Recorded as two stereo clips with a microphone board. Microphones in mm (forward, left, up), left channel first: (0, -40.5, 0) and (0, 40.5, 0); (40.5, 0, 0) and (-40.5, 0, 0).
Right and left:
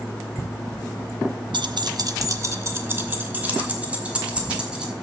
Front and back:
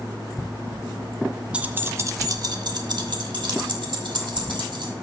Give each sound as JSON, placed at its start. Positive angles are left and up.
{"t": 1.5, "sound": "keys jangling", "azimuth_deg": 105, "distance_m": 0.6}